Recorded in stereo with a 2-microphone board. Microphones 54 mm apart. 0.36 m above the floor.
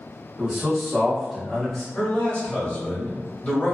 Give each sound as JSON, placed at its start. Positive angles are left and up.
{"t": 0.4, "sound": "a man speaking", "side_deg": -10, "distance_m": 1.0}
{"t": 1.9, "sound": "a man speaking", "side_deg": 25, "distance_m": 1.2}